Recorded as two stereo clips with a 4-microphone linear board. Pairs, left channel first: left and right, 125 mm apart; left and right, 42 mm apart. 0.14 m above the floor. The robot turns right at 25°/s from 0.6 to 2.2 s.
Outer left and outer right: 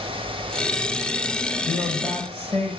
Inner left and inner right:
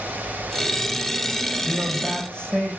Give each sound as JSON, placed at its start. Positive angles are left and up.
{"t": 1.6, "sound": "a man speaking", "side_deg": 0, "distance_m": 5.0}